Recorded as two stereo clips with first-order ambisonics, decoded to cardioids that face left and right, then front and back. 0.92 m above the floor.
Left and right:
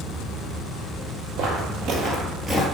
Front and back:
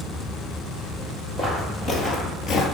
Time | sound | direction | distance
1.4 | footsteps | 70° right | 1.6 m